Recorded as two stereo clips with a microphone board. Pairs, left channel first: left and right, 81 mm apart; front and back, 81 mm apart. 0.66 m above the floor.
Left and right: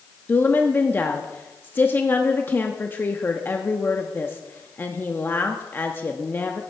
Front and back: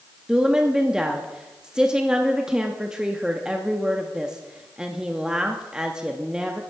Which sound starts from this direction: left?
A woman speaking, at 0.3 s.